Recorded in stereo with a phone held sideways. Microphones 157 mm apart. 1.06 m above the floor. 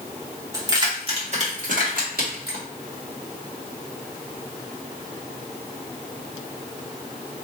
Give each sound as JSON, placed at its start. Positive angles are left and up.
{"t": 0.5, "sound": "keys jangling", "side_deg": -20, "distance_m": 1.7}